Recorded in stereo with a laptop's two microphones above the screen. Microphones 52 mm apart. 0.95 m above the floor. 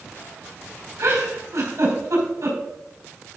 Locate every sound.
1.0 s a giggle: 80° right, 4 m